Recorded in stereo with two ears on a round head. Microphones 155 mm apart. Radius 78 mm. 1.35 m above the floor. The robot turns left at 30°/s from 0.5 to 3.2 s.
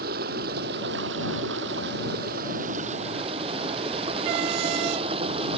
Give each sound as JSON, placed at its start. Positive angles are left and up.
{"t": 0.0, "sound": "running water", "azimuth_deg": -65}